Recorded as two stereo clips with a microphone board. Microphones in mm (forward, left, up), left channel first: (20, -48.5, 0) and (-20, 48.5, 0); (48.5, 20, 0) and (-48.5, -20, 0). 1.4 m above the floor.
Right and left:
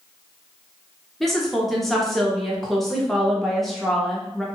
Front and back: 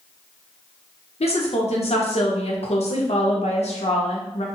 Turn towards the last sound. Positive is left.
turn(degrees=20)